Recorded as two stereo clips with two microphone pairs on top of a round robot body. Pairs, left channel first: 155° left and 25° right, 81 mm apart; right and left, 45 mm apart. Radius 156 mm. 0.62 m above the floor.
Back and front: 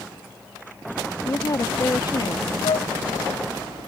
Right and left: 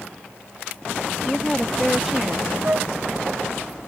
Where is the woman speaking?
165° right; by 2.5 s 170° left.